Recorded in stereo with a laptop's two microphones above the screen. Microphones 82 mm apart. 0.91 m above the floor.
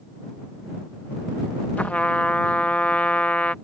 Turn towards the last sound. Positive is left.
turn(degrees=15)  # may be behind; listen again after turning